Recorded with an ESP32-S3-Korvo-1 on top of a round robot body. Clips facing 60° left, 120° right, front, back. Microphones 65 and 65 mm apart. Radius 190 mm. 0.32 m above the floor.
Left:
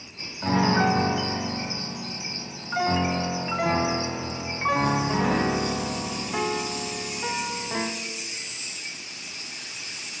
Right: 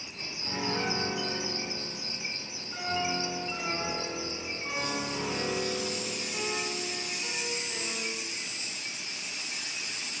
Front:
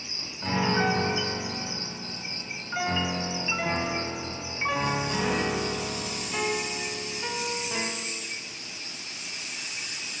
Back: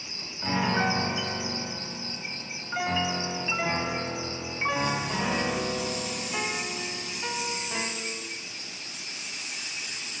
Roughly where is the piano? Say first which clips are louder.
Left 11 dB, front 1 dB; left.